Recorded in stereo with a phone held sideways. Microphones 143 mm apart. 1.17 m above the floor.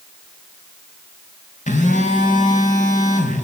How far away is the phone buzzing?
About 5.5 m.